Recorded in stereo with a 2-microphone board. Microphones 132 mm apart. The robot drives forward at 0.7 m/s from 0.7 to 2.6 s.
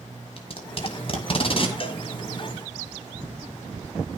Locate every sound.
0.4 s tape being pulled: 45° left (ahead or behind), 1.9 m
1.8 s a cowbell: 45° left (ahead or behind), 1.3 m